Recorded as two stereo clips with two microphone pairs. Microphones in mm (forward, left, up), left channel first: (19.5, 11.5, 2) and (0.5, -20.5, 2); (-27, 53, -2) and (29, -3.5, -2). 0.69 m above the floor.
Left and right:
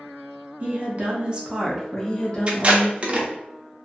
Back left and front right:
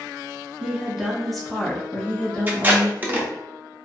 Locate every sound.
0.6 s a woman speaking: 125° right, 1.0 m; by 3.3 s 75° left, 1.1 m
2.5 s tape being pulled: 90° right, 0.6 m